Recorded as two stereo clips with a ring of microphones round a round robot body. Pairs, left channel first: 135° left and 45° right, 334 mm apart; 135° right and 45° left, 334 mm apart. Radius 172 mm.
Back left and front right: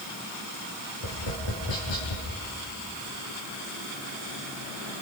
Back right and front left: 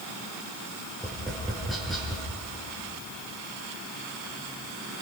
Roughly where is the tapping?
Behind left.